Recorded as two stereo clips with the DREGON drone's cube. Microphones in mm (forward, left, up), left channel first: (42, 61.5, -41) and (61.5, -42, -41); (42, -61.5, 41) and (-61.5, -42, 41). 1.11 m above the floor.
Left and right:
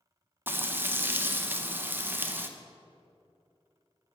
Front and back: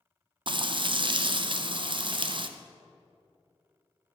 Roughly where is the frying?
Behind right.